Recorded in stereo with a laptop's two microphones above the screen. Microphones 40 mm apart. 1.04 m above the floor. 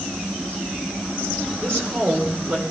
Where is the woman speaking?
55° right (ahead or behind), 4 m.